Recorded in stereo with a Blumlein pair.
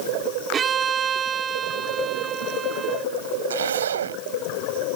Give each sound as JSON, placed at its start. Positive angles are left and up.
{"t": 0.5, "sound": "a violin", "azimuth_deg": -25}
{"t": 3.5, "sound": "a zipper", "azimuth_deg": -65}